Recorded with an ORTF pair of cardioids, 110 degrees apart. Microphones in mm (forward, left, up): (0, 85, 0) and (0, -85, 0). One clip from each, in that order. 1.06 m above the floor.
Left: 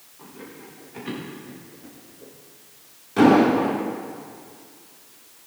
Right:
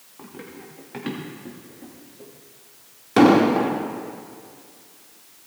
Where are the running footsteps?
60° right, 6 m; by 2.3 s 75° right, 6 m.